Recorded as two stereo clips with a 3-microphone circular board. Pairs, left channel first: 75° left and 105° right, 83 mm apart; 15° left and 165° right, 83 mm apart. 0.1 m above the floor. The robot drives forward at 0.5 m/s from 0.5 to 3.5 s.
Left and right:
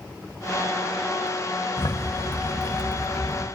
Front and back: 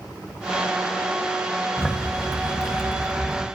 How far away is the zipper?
About 1.4 m.